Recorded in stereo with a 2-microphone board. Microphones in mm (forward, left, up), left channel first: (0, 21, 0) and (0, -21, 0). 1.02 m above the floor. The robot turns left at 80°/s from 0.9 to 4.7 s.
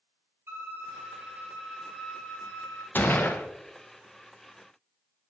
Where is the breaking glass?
I don't hear breaking glass.